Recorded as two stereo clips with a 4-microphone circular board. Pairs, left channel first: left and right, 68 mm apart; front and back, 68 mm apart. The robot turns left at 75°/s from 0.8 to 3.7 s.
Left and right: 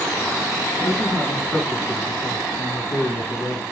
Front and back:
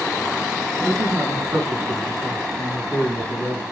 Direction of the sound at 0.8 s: 125° right.